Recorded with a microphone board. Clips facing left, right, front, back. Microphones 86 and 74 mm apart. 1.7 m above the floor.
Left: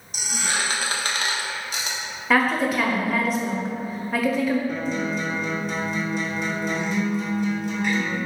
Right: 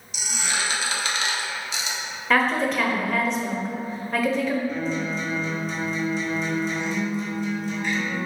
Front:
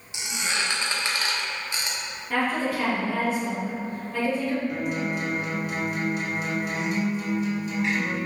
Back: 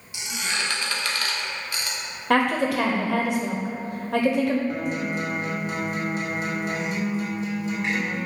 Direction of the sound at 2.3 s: 175° left.